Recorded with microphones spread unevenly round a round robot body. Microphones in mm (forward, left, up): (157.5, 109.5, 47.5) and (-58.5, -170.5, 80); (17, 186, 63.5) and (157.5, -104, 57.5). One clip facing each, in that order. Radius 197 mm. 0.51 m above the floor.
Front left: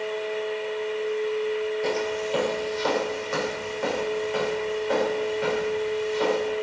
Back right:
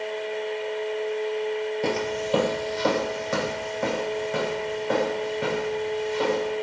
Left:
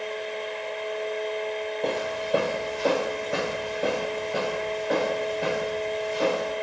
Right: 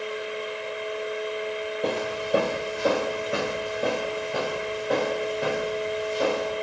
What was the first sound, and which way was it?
Footsteps, 145° right.